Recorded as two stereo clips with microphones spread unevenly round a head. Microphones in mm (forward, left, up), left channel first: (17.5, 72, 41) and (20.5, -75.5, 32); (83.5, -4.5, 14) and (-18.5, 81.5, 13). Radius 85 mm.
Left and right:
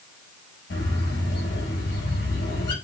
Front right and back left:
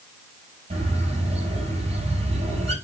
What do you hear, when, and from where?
0.7 s a bird: 100° left, 6.5 m